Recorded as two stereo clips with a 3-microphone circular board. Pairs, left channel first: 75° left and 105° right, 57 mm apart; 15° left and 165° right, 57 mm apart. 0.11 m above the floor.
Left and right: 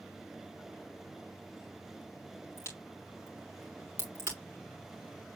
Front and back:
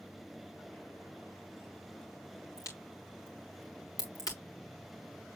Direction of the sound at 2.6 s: 30° left.